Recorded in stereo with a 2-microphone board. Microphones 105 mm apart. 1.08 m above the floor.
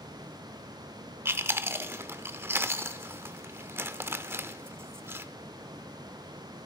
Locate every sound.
1.2 s chewing: 20° right (ahead or behind), 0.8 m